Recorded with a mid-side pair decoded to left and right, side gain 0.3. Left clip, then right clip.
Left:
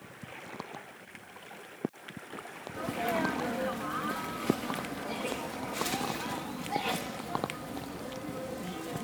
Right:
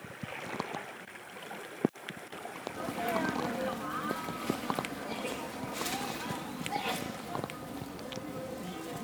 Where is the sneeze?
15° left.